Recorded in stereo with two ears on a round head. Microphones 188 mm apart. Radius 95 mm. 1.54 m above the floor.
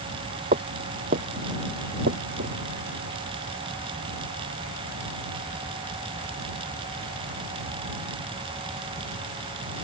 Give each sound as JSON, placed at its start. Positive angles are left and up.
{"t": 0.5, "sound": "footsteps", "side_deg": -35}